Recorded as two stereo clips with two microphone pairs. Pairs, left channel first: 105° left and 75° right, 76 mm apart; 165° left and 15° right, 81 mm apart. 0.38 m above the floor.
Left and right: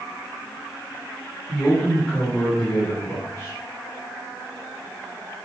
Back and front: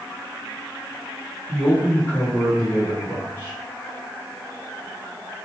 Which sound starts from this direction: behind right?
A man speaking, at 1.5 s.